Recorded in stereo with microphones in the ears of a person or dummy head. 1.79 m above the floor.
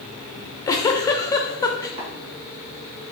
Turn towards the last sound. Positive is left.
turn(degrees=-50)  # may be behind; listen again after turning